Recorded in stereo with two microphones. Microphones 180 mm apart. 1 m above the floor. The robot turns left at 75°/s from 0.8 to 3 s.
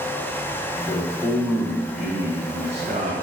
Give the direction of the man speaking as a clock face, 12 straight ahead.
11 o'clock.